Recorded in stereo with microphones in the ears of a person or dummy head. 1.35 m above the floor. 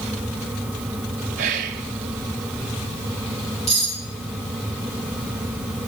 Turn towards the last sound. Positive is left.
turn(degrees=25)  # may be behind; listen again after turning